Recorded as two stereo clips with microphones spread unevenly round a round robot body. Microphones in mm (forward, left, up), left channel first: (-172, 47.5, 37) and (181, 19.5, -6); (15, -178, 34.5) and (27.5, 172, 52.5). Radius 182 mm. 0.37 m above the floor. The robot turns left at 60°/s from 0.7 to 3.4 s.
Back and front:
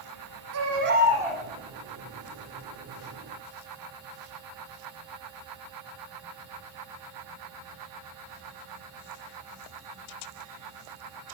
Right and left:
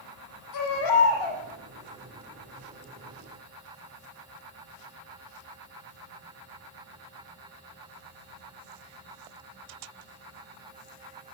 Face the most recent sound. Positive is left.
turn(degrees=140)